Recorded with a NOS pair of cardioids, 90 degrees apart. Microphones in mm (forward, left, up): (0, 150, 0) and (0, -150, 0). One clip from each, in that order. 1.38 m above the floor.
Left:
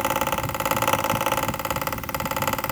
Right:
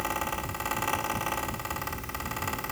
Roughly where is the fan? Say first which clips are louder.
Left 8 dB; ahead left.